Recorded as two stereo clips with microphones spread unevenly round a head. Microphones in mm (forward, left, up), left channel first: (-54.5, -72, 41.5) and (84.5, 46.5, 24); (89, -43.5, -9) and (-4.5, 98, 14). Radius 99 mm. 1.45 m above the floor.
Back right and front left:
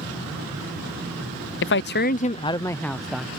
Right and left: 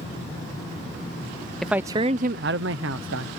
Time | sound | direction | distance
1.6 | a man speaking | 140° right | ?